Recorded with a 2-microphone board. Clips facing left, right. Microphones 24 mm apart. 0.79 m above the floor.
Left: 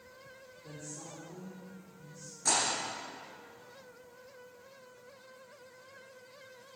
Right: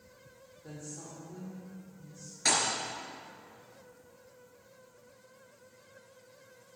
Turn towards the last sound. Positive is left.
turn(degrees=-50)  # may be behind; listen again after turning